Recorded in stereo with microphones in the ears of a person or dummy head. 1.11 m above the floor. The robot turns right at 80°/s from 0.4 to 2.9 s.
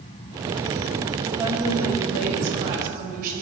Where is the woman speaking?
170° right, 6 m; by 3.4 s 50° right, 6 m.